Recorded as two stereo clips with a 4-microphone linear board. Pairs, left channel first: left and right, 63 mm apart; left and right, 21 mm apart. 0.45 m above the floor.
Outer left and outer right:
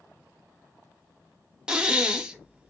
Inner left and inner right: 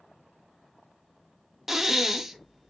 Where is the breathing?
15° right (ahead or behind), 0.6 m.